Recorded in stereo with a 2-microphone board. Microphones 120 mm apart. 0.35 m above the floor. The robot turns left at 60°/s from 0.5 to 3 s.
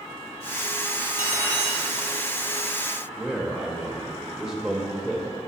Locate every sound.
1.0 s cutlery clinking: 10° right, 1.7 m; by 1.8 s 55° right, 1.7 m
3.2 s a man speaking: 5° right (ahead or behind), 0.9 m